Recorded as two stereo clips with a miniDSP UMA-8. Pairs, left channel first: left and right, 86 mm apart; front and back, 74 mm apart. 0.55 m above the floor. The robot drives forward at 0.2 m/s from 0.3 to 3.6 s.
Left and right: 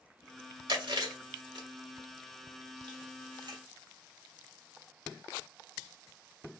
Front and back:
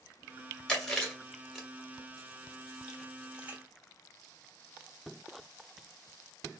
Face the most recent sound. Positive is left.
turn(degrees=-110)